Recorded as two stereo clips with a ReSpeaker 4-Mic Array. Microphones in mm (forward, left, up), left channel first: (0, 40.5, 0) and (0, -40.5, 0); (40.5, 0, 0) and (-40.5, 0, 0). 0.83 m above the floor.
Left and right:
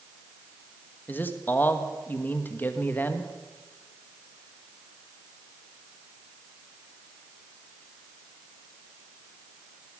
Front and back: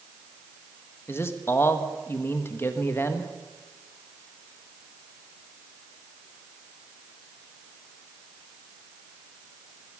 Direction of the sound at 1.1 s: 40° left.